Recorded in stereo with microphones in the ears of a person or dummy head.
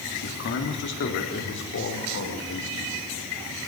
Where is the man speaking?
60° left (ahead or behind), 3.5 m; by 3.0 s 70° left (ahead or behind), 6.5 m.